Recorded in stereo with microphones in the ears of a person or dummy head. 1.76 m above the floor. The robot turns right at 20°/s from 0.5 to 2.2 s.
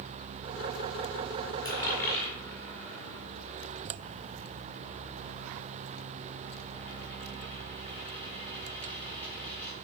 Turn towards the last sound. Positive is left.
turn(degrees=15)  # may be behind; listen again after turning